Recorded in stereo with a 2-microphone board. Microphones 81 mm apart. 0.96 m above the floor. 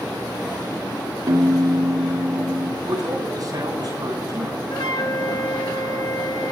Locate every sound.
1.3 s a piano: 65° right (ahead or behind), 2 m
2.9 s a man speaking: 55° right (ahead or behind), 9.5 m
4.7 s a flute: 60° left (ahead or behind), 1.3 m